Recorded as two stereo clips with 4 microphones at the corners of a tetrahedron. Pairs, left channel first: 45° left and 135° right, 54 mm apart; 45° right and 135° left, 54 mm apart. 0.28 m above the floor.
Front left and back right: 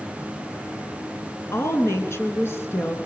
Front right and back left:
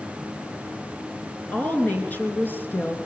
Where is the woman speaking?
20° left, 3.5 m; by 3.0 s 5° left, 3.5 m.